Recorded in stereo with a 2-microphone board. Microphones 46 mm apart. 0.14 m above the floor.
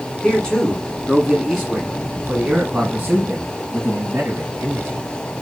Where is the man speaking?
20° left (ahead or behind), 1.6 m; by 5.0 s 50° right (ahead or behind), 2.5 m.